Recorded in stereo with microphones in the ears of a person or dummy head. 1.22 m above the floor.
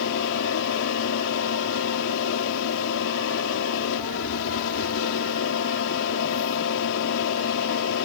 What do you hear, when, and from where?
0.0 s a fan: 70° left (ahead or behind)